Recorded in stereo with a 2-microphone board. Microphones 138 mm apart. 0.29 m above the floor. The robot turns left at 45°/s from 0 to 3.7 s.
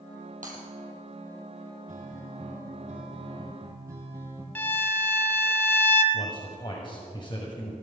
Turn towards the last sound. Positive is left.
turn(degrees=35)  # may be behind; listen again after turning